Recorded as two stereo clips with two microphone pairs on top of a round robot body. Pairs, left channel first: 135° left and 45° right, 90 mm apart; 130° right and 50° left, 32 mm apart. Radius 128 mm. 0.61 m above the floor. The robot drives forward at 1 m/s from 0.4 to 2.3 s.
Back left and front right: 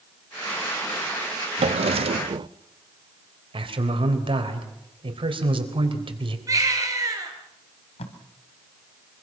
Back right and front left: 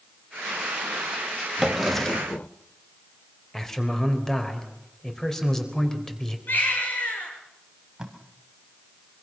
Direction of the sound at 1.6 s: 30° right.